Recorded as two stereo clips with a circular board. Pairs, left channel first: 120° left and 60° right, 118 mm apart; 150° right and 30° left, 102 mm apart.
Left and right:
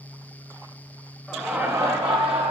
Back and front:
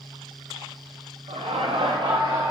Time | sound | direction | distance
1.3 | laughter | 30° left | 0.7 m